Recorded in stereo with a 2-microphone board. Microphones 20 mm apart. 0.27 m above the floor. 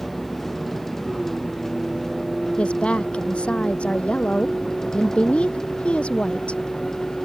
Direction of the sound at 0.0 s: 10° left (ahead or behind).